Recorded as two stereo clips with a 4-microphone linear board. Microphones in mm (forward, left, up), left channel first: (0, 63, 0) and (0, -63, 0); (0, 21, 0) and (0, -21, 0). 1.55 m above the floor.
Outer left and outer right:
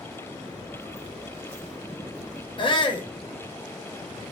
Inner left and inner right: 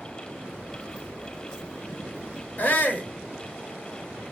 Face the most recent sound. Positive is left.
turn(degrees=40)  # may be behind; listen again after turning